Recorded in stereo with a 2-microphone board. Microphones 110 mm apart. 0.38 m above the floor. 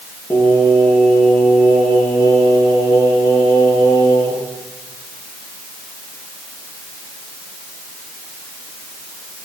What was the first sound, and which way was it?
Singing, 25° left (ahead or behind).